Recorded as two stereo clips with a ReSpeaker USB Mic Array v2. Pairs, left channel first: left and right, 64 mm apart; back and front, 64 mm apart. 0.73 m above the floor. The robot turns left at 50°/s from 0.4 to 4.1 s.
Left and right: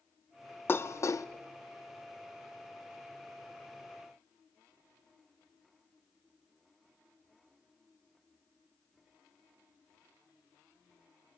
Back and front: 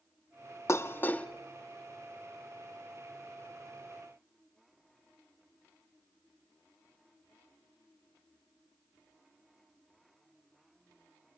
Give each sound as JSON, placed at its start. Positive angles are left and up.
{"t": 0.7, "sound": "dishes clattering", "azimuth_deg": 140, "distance_m": 0.6}